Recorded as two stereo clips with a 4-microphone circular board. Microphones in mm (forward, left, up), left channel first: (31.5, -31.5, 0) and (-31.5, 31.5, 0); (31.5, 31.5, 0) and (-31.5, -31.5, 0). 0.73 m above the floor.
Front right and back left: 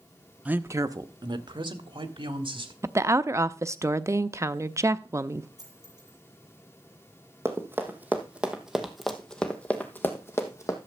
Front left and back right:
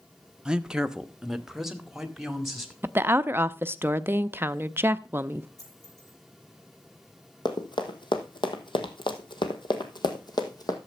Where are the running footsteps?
75° left, 1.9 m; by 10.8 s 5° left, 1.8 m.